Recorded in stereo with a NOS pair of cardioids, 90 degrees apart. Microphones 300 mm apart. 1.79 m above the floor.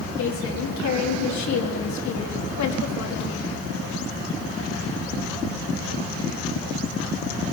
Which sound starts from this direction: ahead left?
A woman speaking, at 0.2 s.